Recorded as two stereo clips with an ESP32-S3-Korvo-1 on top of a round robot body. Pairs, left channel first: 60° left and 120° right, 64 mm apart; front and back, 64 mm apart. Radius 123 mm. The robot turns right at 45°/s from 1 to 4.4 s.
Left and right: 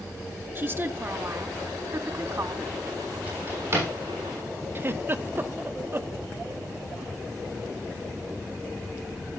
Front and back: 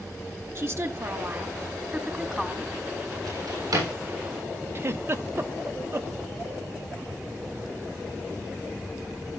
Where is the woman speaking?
150° right, 1.8 m; by 2.7 s 75° right, 1.8 m.